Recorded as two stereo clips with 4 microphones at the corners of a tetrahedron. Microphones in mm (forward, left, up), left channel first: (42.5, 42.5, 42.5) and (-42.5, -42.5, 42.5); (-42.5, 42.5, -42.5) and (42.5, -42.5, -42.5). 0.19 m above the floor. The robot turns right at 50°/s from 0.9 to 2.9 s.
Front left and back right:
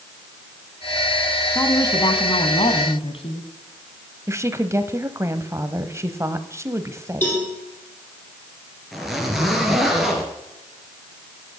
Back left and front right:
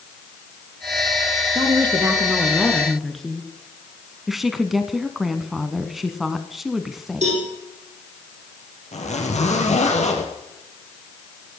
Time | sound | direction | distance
1.6 | a woman speaking | 20° right | 2 m
4.3 | a woman speaking | 130° right | 1.1 m
7.2 | a cowbell | 30° right | 7 m
8.9 | a zipper | 135° left | 3.5 m